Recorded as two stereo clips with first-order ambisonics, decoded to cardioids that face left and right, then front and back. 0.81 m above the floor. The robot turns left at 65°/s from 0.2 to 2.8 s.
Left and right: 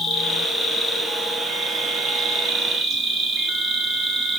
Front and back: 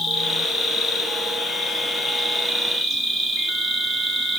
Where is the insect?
50° left, 0.7 m; by 4.4 s 115° right, 0.7 m.